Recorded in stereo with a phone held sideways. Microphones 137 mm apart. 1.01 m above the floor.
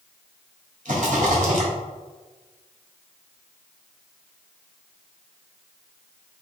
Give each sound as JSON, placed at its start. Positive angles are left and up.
{"t": 0.8, "sound": "a rattle", "side_deg": -60, "distance_m": 1.2}